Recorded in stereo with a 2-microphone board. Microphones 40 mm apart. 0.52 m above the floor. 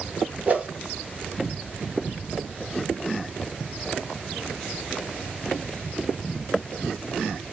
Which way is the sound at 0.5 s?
40° right (ahead or behind).